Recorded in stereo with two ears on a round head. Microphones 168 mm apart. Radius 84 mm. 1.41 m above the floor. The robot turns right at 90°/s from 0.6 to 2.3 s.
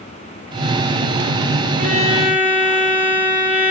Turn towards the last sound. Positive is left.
turn(degrees=-10)